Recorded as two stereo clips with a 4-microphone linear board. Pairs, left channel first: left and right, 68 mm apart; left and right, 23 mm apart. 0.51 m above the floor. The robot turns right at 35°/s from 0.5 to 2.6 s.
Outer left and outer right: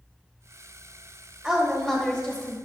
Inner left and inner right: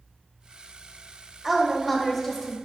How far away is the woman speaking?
About 1.1 m.